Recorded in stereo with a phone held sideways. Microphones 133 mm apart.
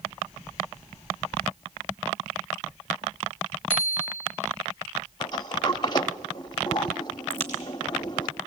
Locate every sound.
3.7 s a bicycle bell: 45° right (ahead or behind), 3 m
5.2 s a sliding door: 35° left (ahead or behind), 0.9 m
7.3 s a crack: 55° right (ahead or behind), 5 m